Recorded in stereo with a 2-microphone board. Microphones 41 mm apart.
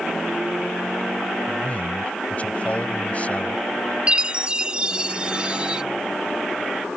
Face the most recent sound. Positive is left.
turn(degrees=-20)  # may be behind; listen again after turning